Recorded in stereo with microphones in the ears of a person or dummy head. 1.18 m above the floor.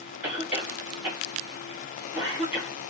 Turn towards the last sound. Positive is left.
turn(degrees=-10)  # may be behind; listen again after turning